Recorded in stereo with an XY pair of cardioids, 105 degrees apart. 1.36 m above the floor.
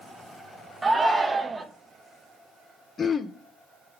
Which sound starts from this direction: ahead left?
Throat clearing, at 3.0 s.